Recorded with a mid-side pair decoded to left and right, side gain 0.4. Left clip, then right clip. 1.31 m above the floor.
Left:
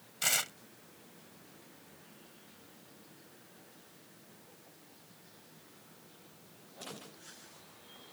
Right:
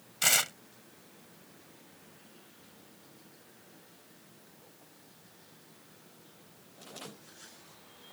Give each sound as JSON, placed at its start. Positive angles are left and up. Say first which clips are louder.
{"t": 0.2, "sound": "tearing paper", "louder": "right 5 dB", "azimuth_deg": -35}